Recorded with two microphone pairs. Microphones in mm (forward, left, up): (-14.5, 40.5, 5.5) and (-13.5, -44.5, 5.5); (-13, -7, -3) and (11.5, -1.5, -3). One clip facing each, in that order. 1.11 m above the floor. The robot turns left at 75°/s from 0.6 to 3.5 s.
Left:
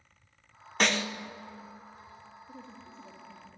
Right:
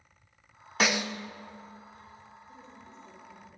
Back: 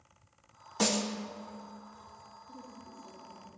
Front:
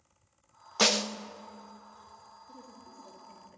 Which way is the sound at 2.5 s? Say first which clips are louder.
Left 3 dB, back 2 dB; 80° left.